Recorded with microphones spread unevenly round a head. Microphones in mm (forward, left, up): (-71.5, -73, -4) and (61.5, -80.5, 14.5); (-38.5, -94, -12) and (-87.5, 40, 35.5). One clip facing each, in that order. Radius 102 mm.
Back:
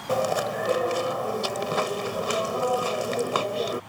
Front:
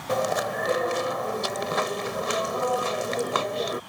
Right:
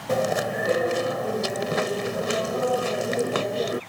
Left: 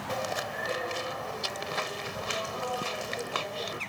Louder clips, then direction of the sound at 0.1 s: Back 1 dB, right 11 dB; 100° right.